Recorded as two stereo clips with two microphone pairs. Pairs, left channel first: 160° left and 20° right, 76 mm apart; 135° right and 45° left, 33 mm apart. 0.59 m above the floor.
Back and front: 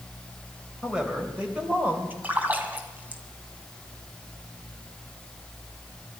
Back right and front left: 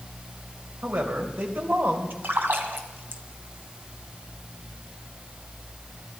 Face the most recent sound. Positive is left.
turn(degrees=50)